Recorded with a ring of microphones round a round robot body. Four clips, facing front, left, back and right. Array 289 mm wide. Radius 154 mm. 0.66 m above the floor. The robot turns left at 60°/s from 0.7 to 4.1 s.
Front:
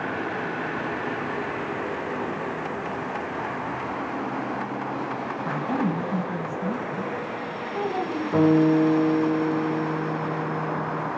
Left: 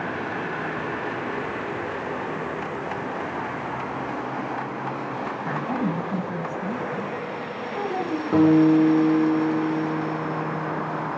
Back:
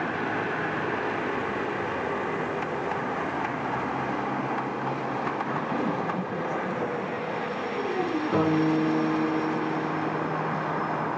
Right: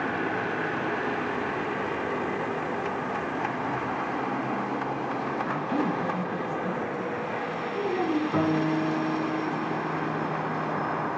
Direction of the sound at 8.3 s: 95° left.